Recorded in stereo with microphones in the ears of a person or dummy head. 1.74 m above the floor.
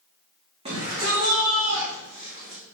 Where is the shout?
30° right (ahead or behind), 2.5 m; by 2.6 s 45° right (ahead or behind), 4.5 m.